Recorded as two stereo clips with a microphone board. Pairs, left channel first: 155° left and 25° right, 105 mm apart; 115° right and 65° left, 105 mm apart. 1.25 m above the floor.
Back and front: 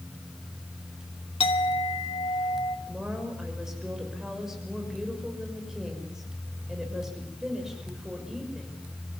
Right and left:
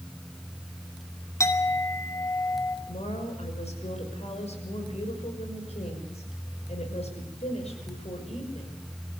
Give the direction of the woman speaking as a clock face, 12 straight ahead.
4 o'clock.